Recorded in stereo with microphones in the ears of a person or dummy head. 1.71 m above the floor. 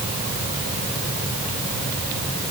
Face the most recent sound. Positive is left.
No sound to turn to.